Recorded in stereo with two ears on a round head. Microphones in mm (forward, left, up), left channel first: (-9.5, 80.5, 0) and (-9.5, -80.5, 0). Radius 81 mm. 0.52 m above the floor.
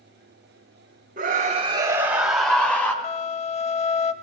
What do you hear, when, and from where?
1.2 s a scream: 45° right (ahead or behind), 1.4 m; by 2.9 s 10° left (ahead or behind), 2.5 m
3.0 s a flute: 40° left (ahead or behind), 0.6 m